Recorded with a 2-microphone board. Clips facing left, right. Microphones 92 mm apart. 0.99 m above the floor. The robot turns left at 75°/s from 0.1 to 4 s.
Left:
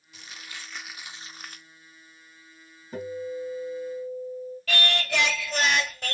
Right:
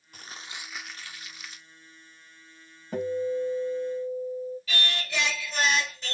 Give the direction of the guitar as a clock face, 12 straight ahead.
3 o'clock.